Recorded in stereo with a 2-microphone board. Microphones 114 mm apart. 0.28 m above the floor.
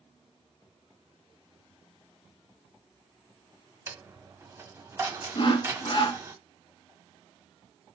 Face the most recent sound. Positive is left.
turn(degrees=45)  # may be behind; listen again after turning